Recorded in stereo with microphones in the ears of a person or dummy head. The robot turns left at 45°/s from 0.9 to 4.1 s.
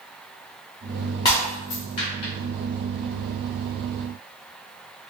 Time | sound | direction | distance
1.2 | breaking glass | 20° left (ahead or behind) | 1.2 m